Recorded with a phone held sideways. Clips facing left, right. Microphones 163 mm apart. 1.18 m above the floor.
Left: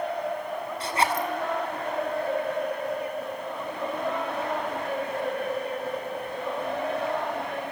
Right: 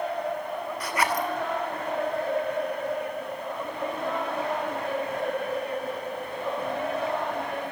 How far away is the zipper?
About 2.5 m.